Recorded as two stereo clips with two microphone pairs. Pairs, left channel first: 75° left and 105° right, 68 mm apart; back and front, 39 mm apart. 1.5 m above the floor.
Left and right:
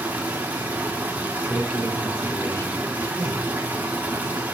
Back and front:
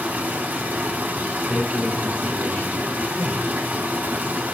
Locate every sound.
0.0 s running water: 45° right, 2 m
1.5 s a man speaking: 130° left, 4 m